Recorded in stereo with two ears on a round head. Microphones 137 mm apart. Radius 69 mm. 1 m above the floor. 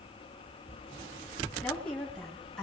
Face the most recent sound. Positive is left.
turn(degrees=5)  # may be behind; listen again after turning